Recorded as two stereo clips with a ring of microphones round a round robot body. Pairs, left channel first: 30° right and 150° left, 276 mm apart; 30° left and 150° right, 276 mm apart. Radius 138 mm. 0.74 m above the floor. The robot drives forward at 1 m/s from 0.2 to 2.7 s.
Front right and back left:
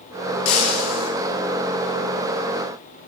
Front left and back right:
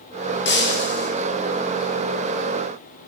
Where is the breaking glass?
25° right, 9 m.